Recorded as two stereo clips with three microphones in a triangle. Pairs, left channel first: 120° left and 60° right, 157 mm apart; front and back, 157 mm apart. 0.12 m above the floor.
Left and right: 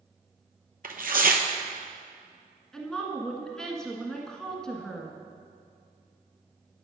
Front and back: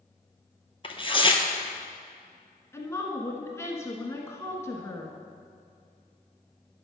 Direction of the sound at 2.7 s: 40° left.